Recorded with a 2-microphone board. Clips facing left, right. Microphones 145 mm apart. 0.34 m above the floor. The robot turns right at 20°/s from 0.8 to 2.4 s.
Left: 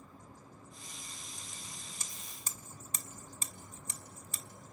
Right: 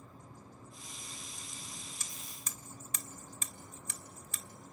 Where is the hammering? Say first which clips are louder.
Even; 35° left (ahead or behind), 1.2 m.